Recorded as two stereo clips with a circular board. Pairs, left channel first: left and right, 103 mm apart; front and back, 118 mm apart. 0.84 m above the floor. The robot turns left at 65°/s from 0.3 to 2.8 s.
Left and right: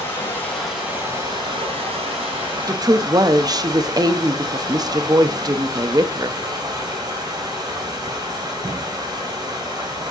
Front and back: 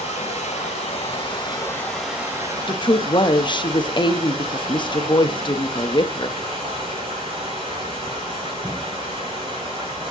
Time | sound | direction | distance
0.0 | running water | 20° left | 4 m
2.7 | a woman speaking | 35° right | 0.7 m